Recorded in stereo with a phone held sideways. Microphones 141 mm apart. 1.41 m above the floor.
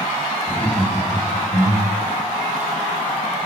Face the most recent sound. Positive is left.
turn(degrees=-50)  # may be behind; listen again after turning